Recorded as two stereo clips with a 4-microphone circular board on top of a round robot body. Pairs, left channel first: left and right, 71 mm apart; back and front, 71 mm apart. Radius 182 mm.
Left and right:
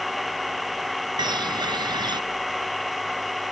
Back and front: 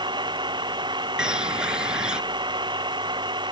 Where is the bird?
80° right.